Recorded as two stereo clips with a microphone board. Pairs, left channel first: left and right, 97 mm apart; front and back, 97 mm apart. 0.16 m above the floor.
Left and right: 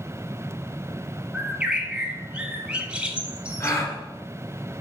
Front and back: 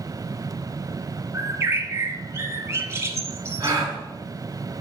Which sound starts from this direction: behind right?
A bird, at 1.3 s.